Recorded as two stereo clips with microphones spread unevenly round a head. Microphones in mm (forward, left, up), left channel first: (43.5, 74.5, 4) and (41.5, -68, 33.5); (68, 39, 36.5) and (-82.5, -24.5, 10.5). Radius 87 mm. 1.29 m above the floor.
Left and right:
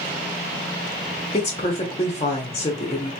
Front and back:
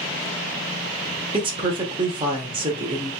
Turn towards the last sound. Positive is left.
turn(degrees=145)